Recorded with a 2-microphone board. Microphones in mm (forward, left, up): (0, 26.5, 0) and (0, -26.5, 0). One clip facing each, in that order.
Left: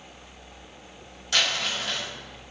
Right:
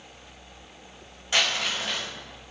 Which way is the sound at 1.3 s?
25° right (ahead or behind).